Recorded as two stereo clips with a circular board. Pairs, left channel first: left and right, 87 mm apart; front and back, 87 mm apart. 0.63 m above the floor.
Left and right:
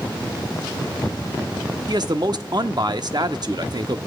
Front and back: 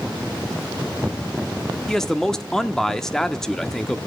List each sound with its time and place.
1.9 s a man speaking: 85° right, 1.0 m